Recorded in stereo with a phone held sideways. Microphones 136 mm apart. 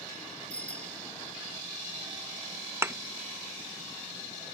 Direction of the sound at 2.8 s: 20° right (ahead or behind).